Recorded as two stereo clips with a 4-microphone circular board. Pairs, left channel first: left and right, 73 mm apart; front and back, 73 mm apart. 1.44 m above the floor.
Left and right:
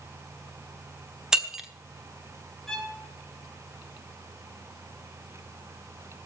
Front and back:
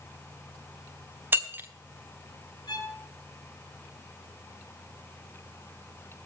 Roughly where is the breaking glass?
Behind.